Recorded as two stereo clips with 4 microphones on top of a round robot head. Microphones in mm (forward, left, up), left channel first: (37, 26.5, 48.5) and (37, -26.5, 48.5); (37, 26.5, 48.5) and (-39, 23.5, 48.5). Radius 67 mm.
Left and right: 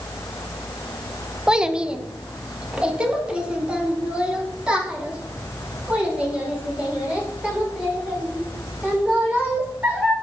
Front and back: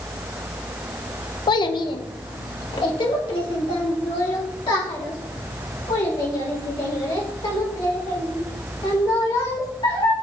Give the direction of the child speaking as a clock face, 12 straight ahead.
12 o'clock.